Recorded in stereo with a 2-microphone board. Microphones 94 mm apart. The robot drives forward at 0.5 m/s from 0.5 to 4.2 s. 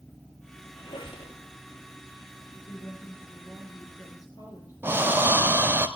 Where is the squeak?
55° left (ahead or behind), 2.5 m; by 1.3 s 60° left (ahead or behind), 2.5 m.